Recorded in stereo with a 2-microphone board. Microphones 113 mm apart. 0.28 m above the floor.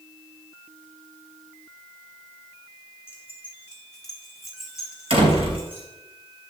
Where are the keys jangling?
20° left (ahead or behind), 3 m; by 5.9 s 15° right (ahead or behind), 4.5 m.